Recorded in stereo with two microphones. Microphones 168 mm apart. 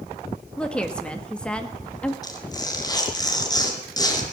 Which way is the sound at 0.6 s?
5° left (ahead or behind).